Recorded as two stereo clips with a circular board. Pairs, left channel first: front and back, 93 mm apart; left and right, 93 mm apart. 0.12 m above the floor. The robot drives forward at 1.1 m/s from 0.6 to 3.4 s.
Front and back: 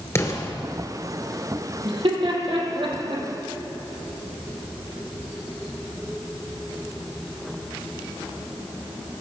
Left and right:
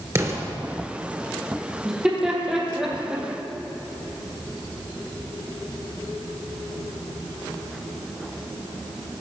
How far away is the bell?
I don't hear a bell.